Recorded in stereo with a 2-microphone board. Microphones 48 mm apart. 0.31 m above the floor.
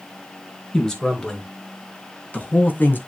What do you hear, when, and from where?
0.7 s a man speaking: 20° left (ahead or behind), 4 m; by 3.0 s 45° left (ahead or behind), 2.5 m